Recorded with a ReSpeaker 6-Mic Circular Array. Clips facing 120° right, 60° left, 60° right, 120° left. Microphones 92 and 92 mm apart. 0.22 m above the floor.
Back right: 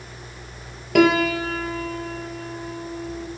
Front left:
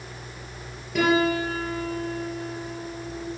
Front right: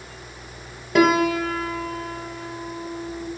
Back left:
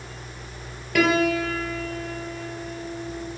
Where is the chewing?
No chewing in this recording.